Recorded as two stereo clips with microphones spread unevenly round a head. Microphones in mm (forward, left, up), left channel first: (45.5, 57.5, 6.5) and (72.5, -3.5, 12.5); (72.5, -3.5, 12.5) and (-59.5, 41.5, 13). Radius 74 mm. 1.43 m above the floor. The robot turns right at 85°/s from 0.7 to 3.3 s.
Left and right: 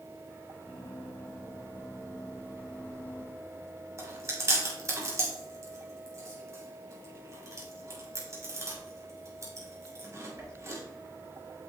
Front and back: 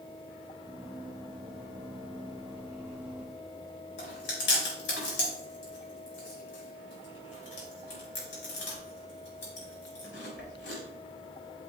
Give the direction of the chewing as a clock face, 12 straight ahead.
1 o'clock.